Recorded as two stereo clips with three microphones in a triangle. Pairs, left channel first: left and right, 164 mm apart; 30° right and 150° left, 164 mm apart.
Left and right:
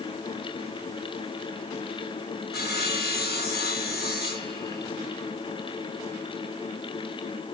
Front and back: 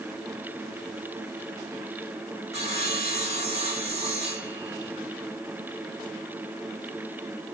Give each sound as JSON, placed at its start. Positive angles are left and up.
{"t": 2.5, "sound": "sawing", "azimuth_deg": 100, "distance_m": 3.0}